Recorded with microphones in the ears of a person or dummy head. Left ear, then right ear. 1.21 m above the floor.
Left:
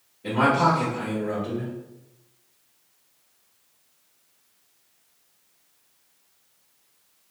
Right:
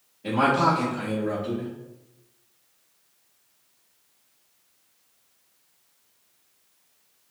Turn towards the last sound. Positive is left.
turn(degrees=-5)  # may be behind; listen again after turning